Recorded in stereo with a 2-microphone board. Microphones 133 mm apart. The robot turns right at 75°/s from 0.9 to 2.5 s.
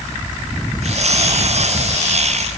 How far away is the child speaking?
No child speaking in this recording.